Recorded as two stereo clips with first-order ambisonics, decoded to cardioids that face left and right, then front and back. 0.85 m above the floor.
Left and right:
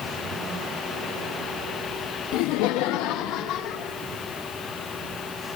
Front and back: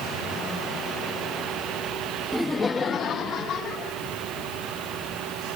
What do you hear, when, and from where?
2.3 s laughter: 95° left, 0.6 m; by 4.0 s 55° left, 2.0 m